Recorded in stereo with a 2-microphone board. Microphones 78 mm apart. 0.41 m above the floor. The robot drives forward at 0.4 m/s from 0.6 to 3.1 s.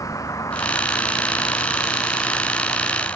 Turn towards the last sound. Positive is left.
turn(degrees=30)  # may be behind; listen again after turning